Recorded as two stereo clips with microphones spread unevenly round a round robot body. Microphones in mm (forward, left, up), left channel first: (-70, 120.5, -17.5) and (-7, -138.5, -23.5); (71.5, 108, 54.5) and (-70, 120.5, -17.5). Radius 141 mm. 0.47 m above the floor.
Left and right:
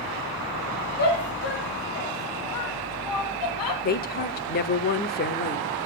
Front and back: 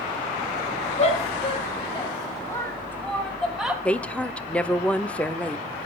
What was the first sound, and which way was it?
A shout, 45° left.